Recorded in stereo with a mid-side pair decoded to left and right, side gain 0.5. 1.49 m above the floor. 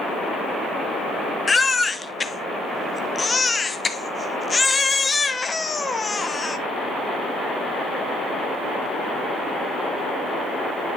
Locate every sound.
1.5 s a baby crying: 25° left, 0.9 m